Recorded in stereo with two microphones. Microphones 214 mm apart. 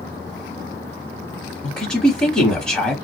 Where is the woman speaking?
5° left (ahead or behind), 1.1 m.